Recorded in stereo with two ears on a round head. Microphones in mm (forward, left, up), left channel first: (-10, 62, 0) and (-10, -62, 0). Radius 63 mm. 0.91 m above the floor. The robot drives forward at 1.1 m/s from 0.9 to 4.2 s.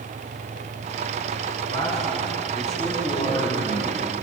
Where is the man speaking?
25° left (ahead or behind), 7 m; by 4.1 s 40° left (ahead or behind), 5 m.